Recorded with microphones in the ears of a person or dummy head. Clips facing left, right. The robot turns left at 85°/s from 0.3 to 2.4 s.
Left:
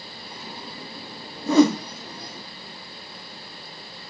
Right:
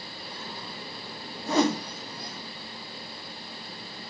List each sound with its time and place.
1.5 s a whoosh: 65° left (ahead or behind), 0.8 m; by 1.8 s 80° left, 0.8 m